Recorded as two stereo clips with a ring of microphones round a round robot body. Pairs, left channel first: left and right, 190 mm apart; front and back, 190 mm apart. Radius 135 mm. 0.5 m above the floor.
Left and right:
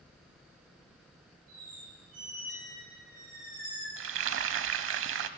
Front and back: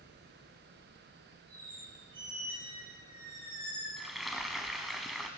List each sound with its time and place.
1.5 s a squeak: 105° right, 9.5 m
4.0 s frying: 90° right, 0.6 m